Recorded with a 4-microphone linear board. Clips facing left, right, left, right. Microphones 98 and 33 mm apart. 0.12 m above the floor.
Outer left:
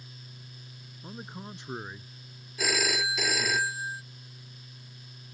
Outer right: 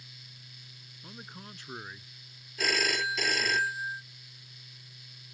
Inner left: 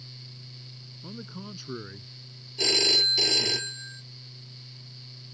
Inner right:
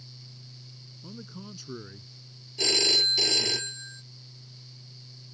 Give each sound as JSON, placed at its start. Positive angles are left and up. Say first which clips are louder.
{"t": 1.0, "sound": "a man speaking", "louder": "outer left 5 dB, inner left 2 dB", "side_deg": 20}
{"t": 2.6, "sound": "a phone ringing", "louder": "outer left 1 dB, inner left 1 dB", "side_deg": 5}